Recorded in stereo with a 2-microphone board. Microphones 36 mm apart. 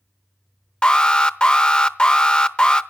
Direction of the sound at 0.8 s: 25° left (ahead or behind).